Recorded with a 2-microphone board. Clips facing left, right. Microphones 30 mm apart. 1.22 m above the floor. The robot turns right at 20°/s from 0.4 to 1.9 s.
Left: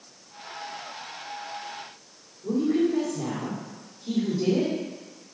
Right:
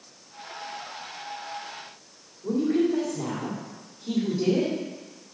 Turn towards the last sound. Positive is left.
turn(degrees=-35)  # may be behind; listen again after turning